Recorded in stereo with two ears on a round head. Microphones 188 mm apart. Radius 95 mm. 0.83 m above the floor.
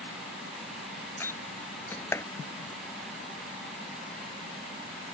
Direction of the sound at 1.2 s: 10° left (ahead or behind).